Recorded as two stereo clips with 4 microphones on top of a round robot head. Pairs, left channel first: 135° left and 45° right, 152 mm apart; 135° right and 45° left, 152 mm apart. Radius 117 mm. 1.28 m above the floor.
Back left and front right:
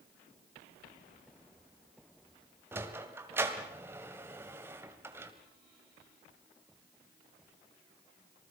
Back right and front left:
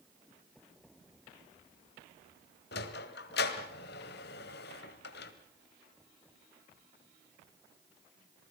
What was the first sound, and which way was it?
A sliding door, 120° right.